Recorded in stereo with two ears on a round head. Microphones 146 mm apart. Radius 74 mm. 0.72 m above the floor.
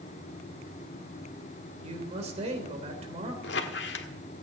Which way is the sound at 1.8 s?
40° right (ahead or behind).